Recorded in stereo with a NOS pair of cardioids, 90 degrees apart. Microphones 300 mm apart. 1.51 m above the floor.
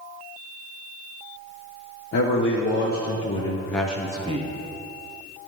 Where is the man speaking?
50° left, 1.2 m; by 4.5 s 25° right, 0.9 m.